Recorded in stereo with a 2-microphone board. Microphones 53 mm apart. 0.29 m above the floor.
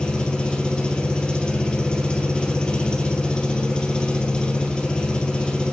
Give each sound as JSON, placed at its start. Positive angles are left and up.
{"t": 0.0, "sound": "an engine running", "side_deg": 20, "distance_m": 2.5}